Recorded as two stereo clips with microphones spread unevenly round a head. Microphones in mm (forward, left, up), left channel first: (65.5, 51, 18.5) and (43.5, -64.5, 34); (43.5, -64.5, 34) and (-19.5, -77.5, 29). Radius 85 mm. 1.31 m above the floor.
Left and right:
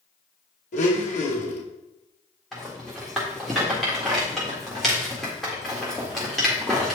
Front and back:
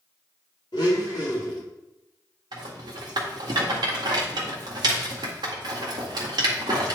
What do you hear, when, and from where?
0.7 s a blender: 60° left, 2 m
2.5 s a rattle: 175° left, 1.7 m